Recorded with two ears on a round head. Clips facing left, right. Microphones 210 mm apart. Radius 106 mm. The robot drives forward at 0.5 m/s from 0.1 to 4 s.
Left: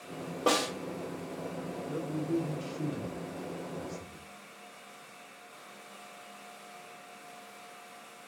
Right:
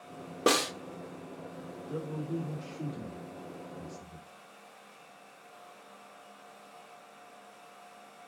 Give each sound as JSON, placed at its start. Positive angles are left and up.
{"t": 0.5, "sound": "a snare drum", "side_deg": -25, "distance_m": 0.6}
{"t": 1.9, "sound": "a man speaking", "side_deg": 35, "distance_m": 1.3}